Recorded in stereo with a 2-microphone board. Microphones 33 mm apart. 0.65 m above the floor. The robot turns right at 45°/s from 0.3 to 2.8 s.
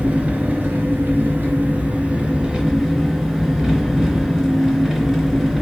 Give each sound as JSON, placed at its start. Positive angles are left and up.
{"t": 0.0, "sound": "an engine running", "azimuth_deg": -125, "distance_m": 2.0}